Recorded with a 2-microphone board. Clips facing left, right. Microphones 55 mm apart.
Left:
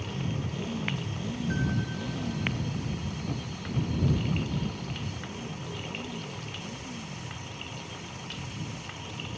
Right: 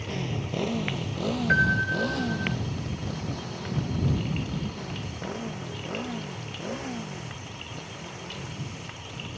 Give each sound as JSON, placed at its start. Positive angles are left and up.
{"t": 0.0, "sound": "a motorcycle", "side_deg": -75}
{"t": 1.5, "sound": "a piano", "side_deg": -65}